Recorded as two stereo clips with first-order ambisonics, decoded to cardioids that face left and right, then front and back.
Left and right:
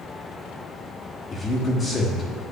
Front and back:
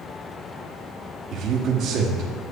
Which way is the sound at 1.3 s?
150° left.